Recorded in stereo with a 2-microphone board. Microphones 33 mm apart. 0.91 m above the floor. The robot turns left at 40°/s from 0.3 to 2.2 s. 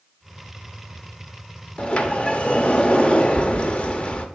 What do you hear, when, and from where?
1.8 s a sliding door: 35° left (ahead or behind), 0.6 m; by 4.3 s 40° left (ahead or behind), 0.6 m